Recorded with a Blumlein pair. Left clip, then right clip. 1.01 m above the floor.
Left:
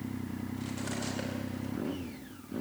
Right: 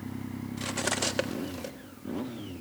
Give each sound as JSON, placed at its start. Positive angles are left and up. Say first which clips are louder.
{"t": 0.6, "sound": "cutlery clinking", "louder": "right 10 dB", "azimuth_deg": -55, "distance_m": 1.0}